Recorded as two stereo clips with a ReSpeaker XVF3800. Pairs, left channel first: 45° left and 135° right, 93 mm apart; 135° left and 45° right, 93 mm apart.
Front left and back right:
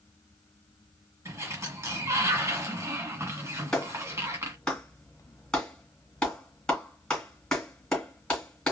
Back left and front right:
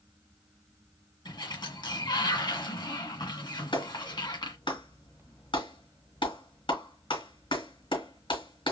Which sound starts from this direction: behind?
A sliding door, at 1.2 s.